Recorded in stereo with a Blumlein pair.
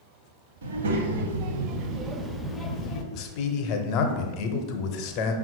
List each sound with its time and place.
0.6 s a child speaking: 65° right, 1.1 m; by 3.0 s 30° left, 0.6 m
3.1 s a man speaking: 40° left, 0.7 m